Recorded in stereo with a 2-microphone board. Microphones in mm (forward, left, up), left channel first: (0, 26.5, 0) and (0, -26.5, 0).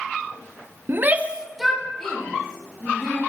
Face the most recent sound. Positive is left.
turn(degrees=20)  # may be behind; listen again after turning